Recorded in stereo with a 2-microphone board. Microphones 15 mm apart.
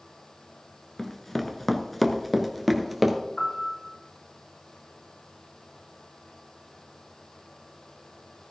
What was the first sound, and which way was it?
Running footsteps, 15° left (ahead or behind).